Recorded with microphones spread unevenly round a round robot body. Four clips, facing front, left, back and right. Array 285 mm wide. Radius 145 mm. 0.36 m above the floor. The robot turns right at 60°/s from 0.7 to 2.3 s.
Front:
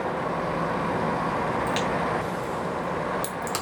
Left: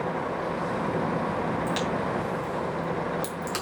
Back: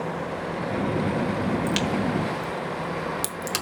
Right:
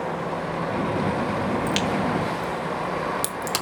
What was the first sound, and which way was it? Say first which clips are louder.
A crack: right 4 dB, even; 125° right.